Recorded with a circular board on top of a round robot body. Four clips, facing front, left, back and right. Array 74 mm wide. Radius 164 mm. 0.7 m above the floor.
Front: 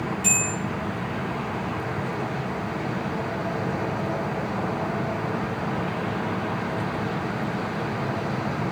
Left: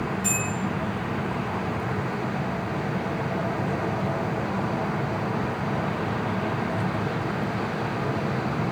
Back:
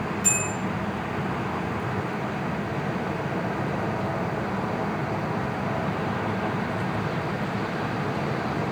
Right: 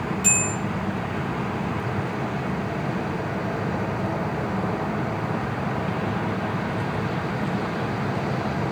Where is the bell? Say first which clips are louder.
Right 1 dB, front 1 dB; 55° right, 0.9 m.